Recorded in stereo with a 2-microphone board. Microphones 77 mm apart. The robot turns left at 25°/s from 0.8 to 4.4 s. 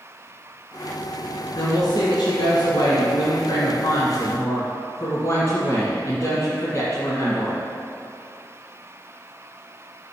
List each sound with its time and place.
1.6 s a woman speaking: 120° left, 1.9 m; by 7.6 s 50° left, 1.9 m